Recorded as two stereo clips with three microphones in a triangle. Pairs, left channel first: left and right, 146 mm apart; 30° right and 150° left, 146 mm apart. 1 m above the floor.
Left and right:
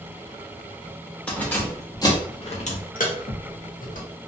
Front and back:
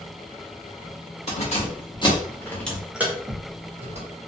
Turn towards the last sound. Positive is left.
turn(degrees=115)